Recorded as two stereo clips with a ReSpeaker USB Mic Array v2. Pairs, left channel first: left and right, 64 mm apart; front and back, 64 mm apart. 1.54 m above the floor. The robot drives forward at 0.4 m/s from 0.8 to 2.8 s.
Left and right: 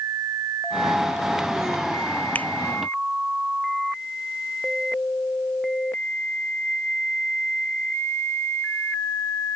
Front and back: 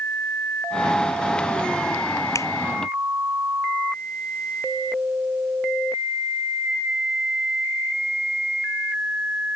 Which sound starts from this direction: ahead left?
A finger snap, at 2.4 s.